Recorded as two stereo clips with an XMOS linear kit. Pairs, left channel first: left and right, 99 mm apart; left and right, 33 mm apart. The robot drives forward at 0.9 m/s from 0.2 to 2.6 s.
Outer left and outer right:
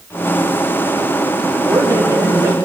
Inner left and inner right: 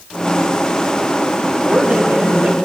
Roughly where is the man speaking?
Right.